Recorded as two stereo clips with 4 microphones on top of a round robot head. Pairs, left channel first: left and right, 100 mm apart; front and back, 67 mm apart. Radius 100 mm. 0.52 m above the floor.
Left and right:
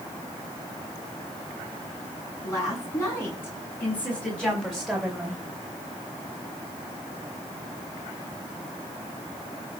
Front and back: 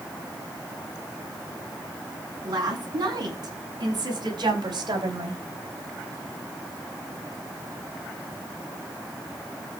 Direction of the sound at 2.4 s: 155° left.